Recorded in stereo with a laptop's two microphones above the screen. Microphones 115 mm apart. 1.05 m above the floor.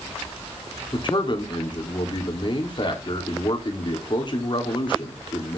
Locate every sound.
0.9 s a man speaking: 45° left (ahead or behind), 3.5 m